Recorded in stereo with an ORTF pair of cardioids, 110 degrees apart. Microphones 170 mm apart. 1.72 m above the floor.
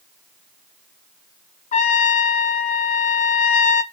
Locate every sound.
1.7 s a trumpet: 50° left, 1.2 m